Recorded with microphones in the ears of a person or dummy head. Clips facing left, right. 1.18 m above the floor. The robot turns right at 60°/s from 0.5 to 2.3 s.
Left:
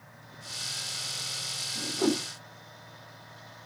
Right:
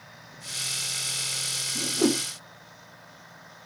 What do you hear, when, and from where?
1.8 s a whoosh: 35° right (ahead or behind), 0.5 m; by 2.2 s 20° right (ahead or behind), 0.5 m